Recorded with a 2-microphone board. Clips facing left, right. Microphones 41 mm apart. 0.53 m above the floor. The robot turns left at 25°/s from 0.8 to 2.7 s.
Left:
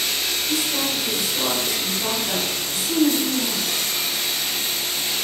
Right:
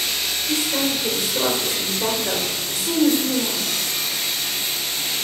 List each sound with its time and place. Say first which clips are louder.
0.5 s a woman speaking: right 4 dB; 55° right, 1.7 m; by 3.7 s 100° right, 1.7 m